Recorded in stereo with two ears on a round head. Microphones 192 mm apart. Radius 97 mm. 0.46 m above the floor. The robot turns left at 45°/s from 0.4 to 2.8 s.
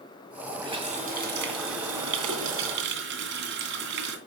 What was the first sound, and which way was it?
A running tap, 20° right.